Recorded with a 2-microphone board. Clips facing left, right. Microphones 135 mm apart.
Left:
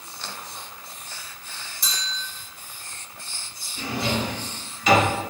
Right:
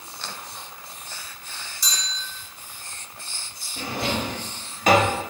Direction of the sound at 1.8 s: 55° left (ahead or behind).